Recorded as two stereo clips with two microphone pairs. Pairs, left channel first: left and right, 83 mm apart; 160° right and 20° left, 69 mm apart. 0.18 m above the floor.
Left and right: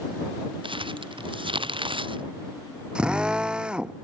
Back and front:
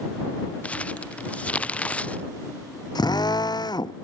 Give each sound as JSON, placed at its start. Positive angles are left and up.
{"t": 0.6, "sound": "crumpling", "azimuth_deg": -90}
{"t": 3.0, "sound": "a drill", "azimuth_deg": -170}